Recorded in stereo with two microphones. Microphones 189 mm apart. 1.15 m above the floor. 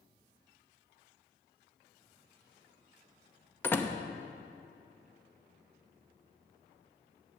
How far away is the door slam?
About 0.7 m.